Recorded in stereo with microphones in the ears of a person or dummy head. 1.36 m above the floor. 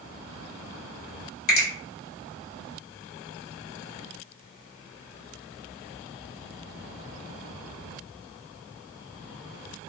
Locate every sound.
1.5 s a finger snap: 40° left (ahead or behind), 1.3 m